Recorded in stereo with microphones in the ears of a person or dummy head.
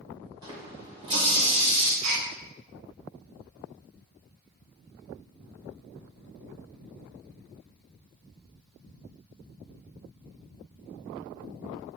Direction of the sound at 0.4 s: 20° right (ahead or behind).